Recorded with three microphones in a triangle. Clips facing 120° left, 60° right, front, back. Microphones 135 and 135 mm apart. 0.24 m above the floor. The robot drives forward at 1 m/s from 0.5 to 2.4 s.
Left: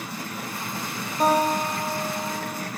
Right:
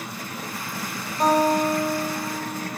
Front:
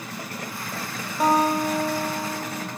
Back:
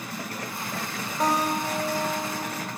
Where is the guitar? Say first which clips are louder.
Right 2 dB, front 5 dB; 55° left, 0.7 m; by 2.7 s 170° left, 1.3 m.